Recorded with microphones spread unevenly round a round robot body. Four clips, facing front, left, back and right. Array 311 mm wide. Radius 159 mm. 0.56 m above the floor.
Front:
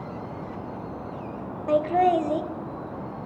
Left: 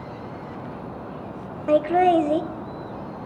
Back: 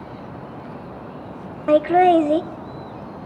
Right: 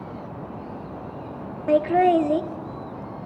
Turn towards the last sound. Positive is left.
turn(degrees=-175)